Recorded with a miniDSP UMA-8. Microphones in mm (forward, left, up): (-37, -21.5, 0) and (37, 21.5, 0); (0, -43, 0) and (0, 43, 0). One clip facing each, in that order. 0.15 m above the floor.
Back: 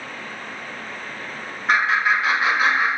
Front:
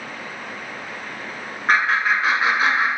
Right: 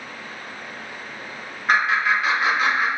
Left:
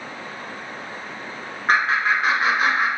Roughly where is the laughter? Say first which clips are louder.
Even, even; ahead left.